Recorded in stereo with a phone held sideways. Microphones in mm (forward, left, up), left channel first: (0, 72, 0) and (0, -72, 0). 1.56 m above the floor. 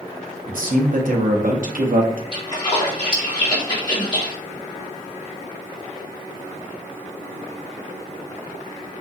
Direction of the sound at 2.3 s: 35° left (ahead or behind).